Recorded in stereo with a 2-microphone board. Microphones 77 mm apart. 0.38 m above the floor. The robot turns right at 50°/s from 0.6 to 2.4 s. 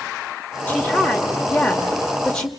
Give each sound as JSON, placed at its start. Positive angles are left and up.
{"t": 0.7, "sound": "a woman speaking", "side_deg": 25, "distance_m": 0.9}